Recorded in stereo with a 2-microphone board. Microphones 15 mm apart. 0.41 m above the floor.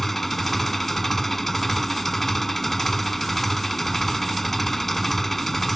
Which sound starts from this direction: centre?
An engine running, at 0.0 s.